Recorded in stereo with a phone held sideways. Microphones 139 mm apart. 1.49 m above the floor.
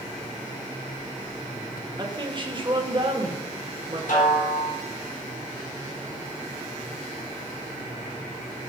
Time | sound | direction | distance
2.0 | a woman speaking | 35° right (ahead or behind) | 1.7 m
4.1 | a snare drum | 70° left (ahead or behind) | 5 m